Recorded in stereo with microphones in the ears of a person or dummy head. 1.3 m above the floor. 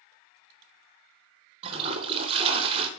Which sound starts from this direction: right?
A toilet flushing, at 1.6 s.